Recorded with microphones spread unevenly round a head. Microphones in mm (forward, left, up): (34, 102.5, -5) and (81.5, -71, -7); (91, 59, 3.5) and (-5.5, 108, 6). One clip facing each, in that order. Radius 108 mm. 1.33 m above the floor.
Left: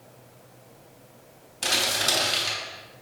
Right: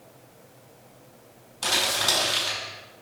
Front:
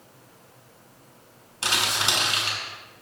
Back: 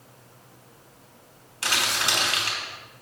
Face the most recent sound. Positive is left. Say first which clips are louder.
# even, even
turn(degrees=35)